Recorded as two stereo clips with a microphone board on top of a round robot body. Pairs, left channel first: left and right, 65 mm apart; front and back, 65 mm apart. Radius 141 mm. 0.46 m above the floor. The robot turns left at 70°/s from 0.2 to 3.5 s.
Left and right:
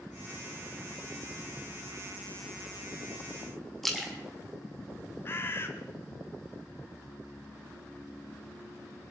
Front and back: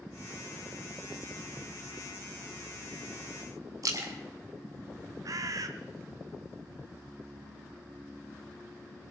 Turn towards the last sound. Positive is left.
turn(degrees=145)